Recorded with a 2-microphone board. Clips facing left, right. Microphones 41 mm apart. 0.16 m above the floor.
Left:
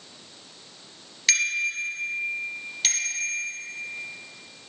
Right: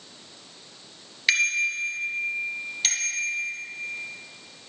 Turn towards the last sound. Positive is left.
turn(degrees=0)  # may be behind; listen again after turning